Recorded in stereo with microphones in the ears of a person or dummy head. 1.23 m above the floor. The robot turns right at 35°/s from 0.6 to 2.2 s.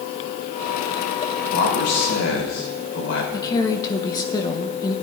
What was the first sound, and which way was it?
A man speaking, 50° left (ahead or behind).